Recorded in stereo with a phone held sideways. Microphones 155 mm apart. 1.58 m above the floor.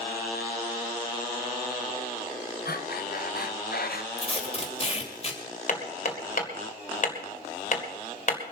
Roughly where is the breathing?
Left.